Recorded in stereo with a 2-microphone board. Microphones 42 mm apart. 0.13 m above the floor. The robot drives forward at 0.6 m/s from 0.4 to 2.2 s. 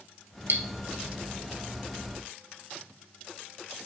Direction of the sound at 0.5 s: 65° right (ahead or behind).